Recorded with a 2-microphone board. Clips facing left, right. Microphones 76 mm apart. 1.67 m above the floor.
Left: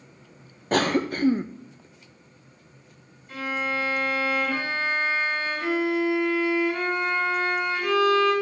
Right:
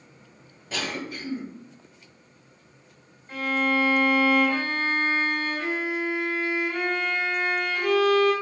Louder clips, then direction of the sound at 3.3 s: Right 4 dB; 40° right (ahead or behind).